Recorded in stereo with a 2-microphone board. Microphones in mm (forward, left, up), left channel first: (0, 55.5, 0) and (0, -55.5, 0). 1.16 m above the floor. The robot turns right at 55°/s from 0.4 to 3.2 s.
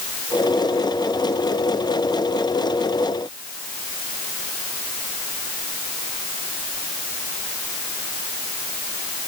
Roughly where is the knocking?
I don't hear knocking.